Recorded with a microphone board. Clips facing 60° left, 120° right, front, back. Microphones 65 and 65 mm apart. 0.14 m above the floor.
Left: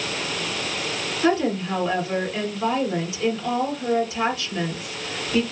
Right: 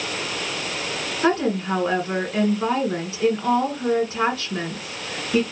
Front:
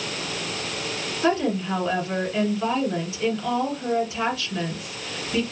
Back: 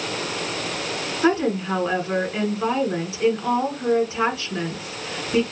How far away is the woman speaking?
About 1.7 m.